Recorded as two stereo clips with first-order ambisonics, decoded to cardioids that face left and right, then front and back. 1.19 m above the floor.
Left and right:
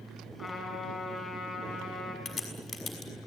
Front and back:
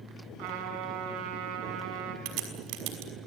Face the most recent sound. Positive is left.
turn(degrees=155)